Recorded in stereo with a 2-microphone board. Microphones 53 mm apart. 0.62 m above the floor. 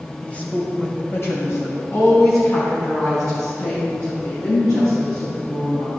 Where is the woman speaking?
20° left (ahead or behind), 2.5 m; by 5.9 s 80° left, 8 m.